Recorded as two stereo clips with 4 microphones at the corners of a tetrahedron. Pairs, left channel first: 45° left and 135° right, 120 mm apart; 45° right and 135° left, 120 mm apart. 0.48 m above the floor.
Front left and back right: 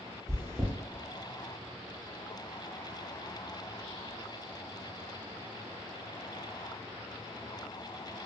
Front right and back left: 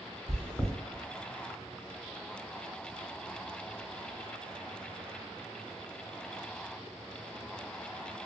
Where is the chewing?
120° right, 0.8 m.